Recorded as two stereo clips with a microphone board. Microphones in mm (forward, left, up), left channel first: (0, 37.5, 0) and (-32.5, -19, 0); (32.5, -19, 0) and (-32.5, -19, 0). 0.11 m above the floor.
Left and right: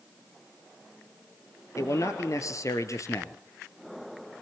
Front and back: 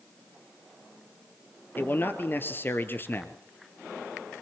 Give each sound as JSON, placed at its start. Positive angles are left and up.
{"t": 1.8, "sound": "a man speaking", "azimuth_deg": 50, "distance_m": 1.8}